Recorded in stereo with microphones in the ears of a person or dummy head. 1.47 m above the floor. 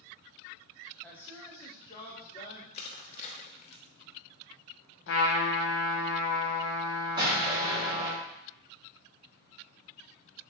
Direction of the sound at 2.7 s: 35° left (ahead or behind).